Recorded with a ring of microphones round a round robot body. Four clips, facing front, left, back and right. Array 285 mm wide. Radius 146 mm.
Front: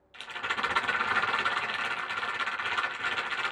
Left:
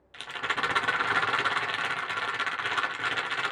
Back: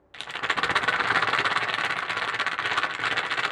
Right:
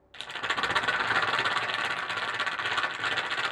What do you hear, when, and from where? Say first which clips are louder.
0.1 s a rattle: even, back 6 dB; 175° right, 0.6 m